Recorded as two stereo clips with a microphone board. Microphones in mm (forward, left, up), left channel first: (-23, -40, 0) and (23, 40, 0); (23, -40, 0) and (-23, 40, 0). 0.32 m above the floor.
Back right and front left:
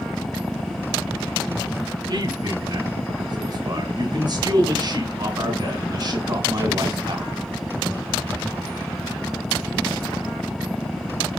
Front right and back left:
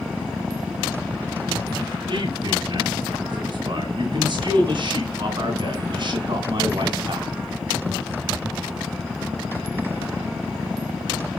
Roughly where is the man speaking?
Left.